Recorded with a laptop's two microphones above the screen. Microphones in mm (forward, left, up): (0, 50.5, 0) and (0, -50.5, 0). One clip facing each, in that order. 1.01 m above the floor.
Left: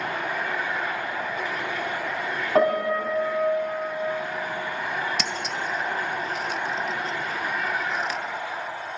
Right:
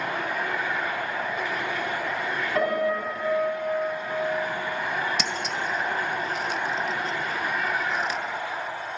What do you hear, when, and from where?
2.5 s a piano: 40° left (ahead or behind), 3.5 m
5.2 s scissors: 5° right (ahead or behind), 0.6 m